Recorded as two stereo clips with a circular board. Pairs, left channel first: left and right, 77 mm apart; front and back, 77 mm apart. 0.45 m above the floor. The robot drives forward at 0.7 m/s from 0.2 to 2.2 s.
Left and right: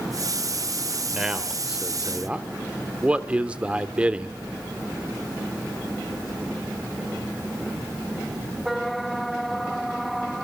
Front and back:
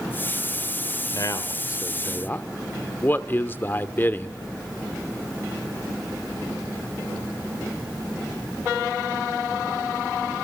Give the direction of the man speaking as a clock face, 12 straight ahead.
12 o'clock.